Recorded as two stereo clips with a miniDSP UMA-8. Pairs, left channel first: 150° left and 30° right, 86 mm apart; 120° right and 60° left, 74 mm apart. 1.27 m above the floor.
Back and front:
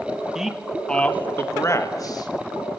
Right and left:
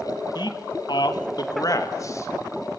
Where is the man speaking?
110° right, 2 m; by 2.3 s 170° right, 2.5 m.